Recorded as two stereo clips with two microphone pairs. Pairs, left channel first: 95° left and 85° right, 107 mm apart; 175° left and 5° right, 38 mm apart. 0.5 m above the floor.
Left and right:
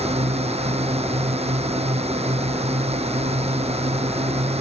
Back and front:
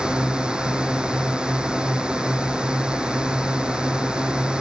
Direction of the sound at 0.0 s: 70° right.